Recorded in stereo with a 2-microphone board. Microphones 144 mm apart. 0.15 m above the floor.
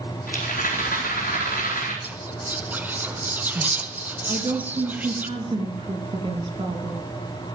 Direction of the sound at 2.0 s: 10° right (ahead or behind).